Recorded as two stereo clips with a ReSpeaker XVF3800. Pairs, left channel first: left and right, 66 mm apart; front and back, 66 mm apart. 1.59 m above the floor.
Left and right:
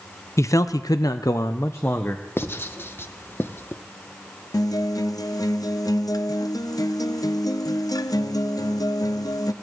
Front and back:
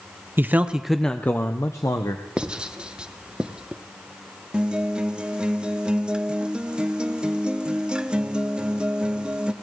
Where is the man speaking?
130° left, 0.7 m; by 2.2 s 25° left, 1.0 m.